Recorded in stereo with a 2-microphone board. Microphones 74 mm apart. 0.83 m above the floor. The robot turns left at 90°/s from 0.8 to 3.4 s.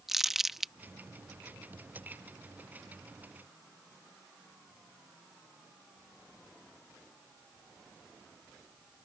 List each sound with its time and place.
0.1 s crumpling: 5° right (ahead or behind)